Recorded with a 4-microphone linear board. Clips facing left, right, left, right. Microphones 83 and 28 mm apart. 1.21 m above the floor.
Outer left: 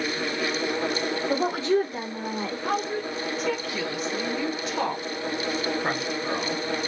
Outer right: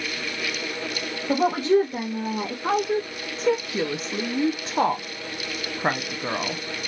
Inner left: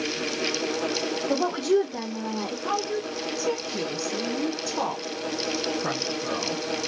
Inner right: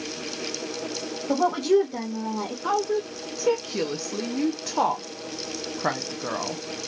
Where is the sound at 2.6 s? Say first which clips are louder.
Outer right 5 dB, inner right 4 dB; 30° right (ahead or behind), 0.5 m.